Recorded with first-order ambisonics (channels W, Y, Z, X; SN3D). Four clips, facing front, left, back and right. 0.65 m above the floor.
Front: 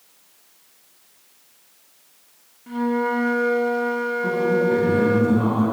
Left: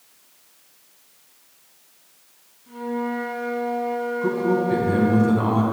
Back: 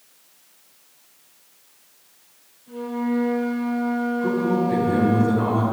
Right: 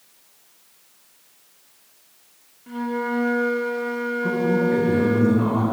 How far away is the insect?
I don't hear an insect.